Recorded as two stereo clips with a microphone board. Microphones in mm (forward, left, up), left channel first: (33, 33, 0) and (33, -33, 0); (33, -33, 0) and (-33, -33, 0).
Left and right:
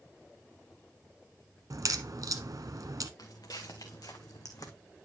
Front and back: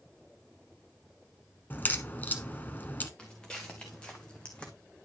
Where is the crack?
60° right, 1.0 m.